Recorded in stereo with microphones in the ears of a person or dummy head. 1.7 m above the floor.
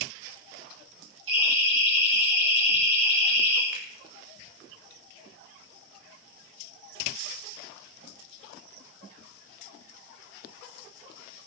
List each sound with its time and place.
1.3 s a siren: 70° right (ahead or behind), 7 m; by 3.6 s 65° right (ahead or behind), 5.5 m
3.7 s a finger snap: 20° right (ahead or behind), 3 m